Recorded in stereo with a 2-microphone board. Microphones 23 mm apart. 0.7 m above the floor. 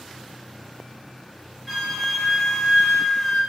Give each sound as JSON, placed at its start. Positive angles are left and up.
{"t": 1.7, "sound": "a flute", "side_deg": -10, "distance_m": 1.1}